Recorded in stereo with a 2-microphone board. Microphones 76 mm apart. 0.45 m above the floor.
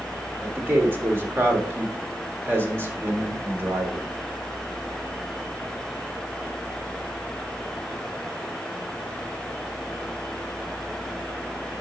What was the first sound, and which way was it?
A man speaking, 30° right (ahead or behind).